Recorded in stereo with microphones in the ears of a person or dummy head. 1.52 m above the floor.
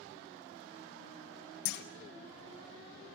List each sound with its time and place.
1.6 s a clunk: 65° left (ahead or behind), 1.1 m